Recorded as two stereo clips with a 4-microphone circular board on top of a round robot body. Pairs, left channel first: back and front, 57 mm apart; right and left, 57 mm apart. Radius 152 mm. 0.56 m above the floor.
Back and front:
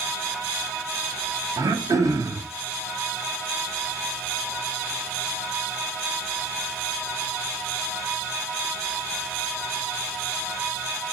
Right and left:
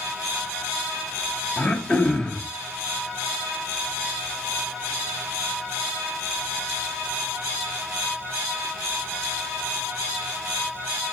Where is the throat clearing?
20° right, 2 m.